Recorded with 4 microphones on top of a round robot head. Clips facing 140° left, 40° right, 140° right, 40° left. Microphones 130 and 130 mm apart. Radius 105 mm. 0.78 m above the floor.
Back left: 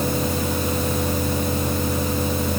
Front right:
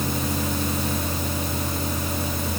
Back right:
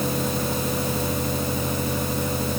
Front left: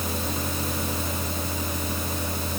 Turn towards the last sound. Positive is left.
No sound to turn to.